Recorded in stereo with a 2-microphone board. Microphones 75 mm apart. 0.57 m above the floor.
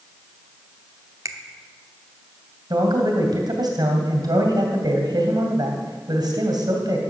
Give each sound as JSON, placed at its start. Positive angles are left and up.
{"t": 1.2, "sound": "a finger snap", "side_deg": -50, "distance_m": 1.0}
{"t": 2.7, "sound": "a man speaking", "side_deg": -70, "distance_m": 2.5}